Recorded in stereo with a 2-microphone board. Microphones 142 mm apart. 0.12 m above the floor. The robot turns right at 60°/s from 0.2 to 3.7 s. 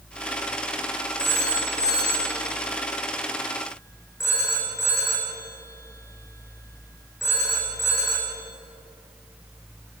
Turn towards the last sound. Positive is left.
turn(degrees=20)  # may be behind; listen again after turning